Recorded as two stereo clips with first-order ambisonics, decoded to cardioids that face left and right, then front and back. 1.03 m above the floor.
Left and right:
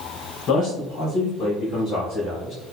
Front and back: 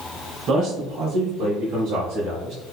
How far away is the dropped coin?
I don't hear a dropped coin.